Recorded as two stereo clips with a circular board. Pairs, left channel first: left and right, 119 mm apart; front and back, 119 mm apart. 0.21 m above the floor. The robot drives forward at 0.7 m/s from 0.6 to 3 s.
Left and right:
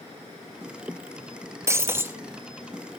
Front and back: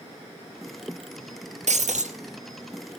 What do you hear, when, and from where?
1.7 s breaking glass: 160° right, 0.9 m; by 2.2 s 165° right, 1.2 m